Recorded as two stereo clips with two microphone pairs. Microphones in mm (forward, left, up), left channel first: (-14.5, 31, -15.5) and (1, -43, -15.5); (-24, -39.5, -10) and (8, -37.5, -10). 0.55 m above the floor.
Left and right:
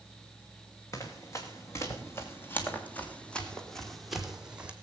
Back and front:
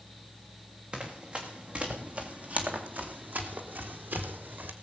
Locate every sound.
0.9 s running footsteps: 60° left, 3 m; by 4.7 s straight ahead, 2.0 m